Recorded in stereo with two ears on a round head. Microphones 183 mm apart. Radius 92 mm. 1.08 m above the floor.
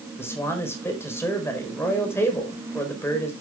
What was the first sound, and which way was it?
A man speaking, 10° left (ahead or behind).